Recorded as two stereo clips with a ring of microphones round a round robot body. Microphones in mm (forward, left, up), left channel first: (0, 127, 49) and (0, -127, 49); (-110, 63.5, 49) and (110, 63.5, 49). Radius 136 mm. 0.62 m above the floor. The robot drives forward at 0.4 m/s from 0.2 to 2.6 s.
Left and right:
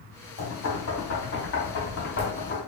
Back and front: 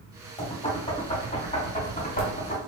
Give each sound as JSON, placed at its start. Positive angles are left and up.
{"t": 0.4, "sound": "knocking", "azimuth_deg": 115, "distance_m": 2.0}